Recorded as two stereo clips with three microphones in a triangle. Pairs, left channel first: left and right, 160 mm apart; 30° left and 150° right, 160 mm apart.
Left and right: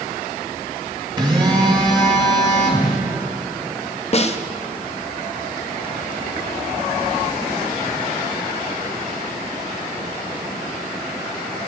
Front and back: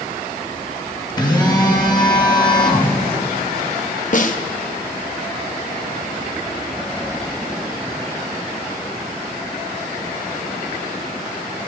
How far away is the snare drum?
About 0.5 m.